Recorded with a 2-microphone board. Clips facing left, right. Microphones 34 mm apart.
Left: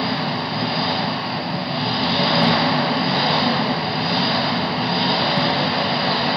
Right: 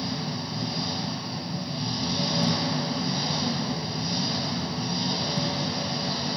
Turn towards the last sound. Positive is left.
turn(degrees=55)  # may be behind; listen again after turning